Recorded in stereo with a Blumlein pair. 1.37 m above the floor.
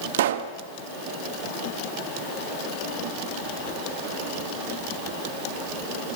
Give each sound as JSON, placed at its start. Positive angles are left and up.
{"t": 0.1, "sound": "a pop", "azimuth_deg": -55, "distance_m": 1.6}